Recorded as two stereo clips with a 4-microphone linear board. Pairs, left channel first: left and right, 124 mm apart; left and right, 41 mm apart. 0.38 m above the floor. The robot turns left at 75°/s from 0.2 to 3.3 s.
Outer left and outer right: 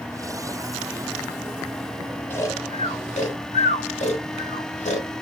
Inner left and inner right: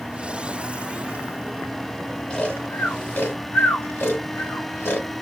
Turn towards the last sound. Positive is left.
turn(degrees=75)  # may be behind; listen again after turning